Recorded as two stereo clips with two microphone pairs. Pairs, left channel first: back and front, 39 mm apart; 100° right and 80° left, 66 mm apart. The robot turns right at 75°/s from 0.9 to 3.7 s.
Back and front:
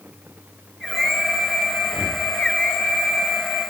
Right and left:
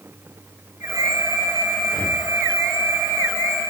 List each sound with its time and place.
1.8 s breathing: 155° right, 7.5 m; by 2.2 s 130° right, 7.5 m